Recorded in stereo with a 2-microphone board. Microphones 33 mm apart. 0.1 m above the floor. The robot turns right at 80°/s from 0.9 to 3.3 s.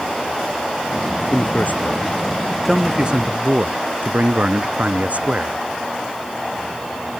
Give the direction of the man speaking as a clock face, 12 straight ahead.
10 o'clock.